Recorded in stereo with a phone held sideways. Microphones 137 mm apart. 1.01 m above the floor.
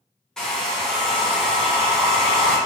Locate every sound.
0.4 s a hair dryer: 5° left (ahead or behind), 0.7 m